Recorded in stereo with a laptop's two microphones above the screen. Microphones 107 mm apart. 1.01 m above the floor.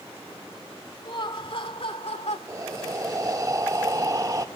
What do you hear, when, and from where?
1.1 s laughter: 50° left (ahead or behind), 3 m; by 2.4 s 80° left, 3 m
2.5 s breathing: 30° right (ahead or behind), 0.7 m